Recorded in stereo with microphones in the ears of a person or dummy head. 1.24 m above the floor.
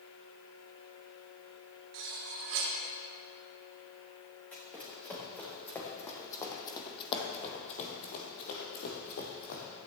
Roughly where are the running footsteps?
Centre.